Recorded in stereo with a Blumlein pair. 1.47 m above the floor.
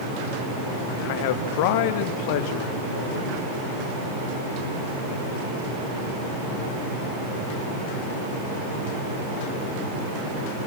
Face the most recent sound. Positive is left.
turn(degrees=45)